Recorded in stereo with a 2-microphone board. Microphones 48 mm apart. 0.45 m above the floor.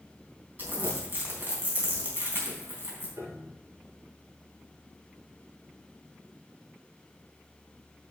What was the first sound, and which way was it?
Crumpling, 40° right (ahead or behind).